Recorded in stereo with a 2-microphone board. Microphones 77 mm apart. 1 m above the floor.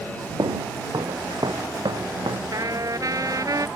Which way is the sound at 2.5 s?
50° right (ahead or behind).